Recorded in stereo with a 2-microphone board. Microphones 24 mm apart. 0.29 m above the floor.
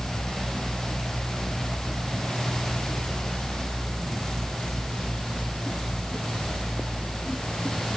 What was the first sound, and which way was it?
Only background noise.